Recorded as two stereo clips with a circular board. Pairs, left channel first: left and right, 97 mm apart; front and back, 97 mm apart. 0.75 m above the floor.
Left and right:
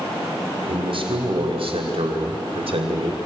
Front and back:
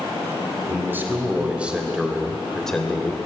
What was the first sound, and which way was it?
A man speaking, 115° right.